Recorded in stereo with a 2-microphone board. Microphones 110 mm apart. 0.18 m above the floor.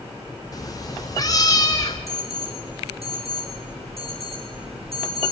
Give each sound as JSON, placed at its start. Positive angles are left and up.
{"t": 0.5, "sound": "a cat meowing", "side_deg": 35, "distance_m": 4.0}
{"t": 2.1, "sound": "an alarm", "side_deg": -65, "distance_m": 5.5}